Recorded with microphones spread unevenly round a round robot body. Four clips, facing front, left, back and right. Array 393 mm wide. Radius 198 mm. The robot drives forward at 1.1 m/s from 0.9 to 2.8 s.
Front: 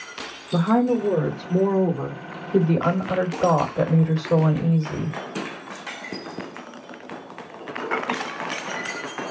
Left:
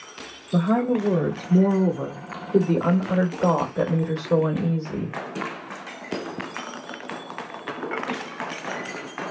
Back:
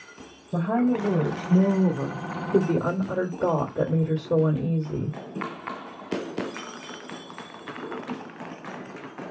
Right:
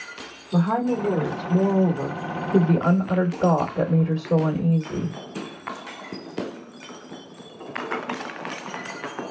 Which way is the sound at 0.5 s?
15° right.